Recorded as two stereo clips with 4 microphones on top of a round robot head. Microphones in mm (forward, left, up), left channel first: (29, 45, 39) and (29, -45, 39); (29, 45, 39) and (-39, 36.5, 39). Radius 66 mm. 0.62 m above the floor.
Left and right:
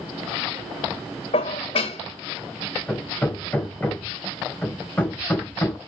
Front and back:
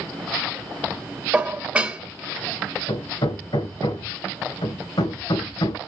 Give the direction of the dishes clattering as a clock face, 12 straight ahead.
8 o'clock.